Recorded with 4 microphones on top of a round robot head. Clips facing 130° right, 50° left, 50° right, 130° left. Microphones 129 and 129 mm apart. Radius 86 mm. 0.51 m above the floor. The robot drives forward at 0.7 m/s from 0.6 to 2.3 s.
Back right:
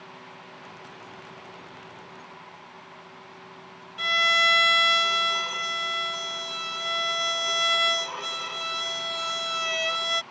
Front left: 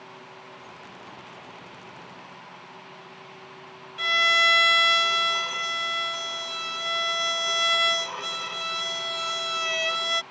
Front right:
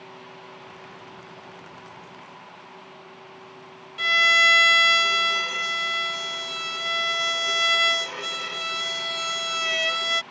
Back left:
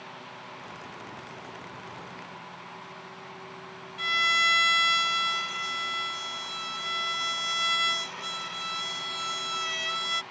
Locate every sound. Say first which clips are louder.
4.0 s a violin: front left 1 dB, front right 6 dB; 40° right